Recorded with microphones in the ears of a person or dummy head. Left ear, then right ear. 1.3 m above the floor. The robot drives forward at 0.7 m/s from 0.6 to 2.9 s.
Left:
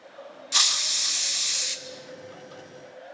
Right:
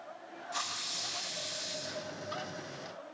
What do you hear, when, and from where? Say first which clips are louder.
0.5 s a hiss: left 14 dB; 65° left (ahead or behind), 1.2 m; by 1.8 s 55° left (ahead or behind), 1.3 m